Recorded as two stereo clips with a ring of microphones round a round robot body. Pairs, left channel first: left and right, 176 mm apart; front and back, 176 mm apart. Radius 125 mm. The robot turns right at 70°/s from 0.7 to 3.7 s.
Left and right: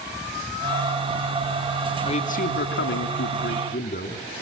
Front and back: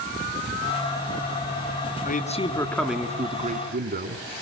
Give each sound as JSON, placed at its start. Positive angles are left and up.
{"t": 2.0, "sound": "a man speaking", "azimuth_deg": 35, "distance_m": 3.5}